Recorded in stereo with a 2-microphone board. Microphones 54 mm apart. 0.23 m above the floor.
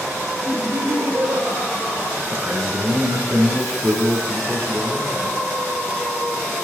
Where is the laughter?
45° right (ahead or behind), 4.5 m.